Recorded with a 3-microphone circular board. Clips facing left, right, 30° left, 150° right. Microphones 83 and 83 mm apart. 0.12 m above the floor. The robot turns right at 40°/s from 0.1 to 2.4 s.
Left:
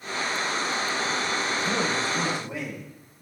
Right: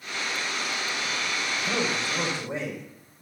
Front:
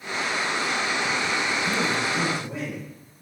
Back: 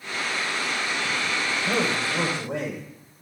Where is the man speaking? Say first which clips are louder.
Even, even; straight behind, 8 m; by 2.8 s 145° right, 8 m.